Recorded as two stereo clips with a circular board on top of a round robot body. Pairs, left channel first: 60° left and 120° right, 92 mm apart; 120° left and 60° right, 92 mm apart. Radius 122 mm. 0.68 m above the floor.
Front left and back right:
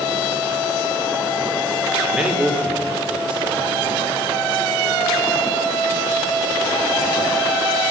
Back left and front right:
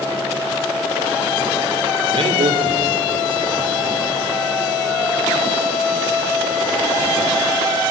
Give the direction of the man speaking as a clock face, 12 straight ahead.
1 o'clock.